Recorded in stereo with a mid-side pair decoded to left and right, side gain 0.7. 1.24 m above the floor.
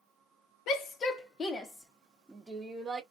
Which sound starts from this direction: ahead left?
A shout, at 0.7 s.